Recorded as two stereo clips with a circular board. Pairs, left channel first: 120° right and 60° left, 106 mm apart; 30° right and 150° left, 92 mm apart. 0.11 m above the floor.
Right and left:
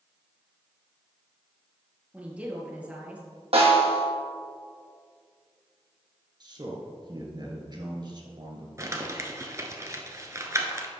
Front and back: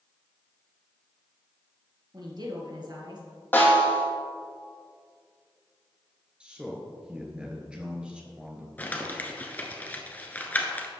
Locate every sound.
2.1 s a woman speaking: 135° left, 1.9 m
3.5 s a snare drum: 40° left, 2 m
6.4 s a man speaking: 75° left, 1.6 m
8.8 s crumpling: 25° left, 1.1 m